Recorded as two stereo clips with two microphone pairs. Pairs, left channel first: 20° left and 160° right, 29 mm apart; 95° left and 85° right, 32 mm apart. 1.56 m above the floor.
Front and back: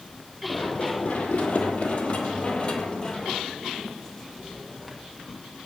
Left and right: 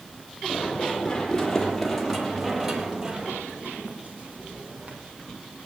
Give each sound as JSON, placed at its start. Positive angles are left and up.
{"t": 0.5, "sound": "running footsteps", "azimuth_deg": 35, "distance_m": 3.5}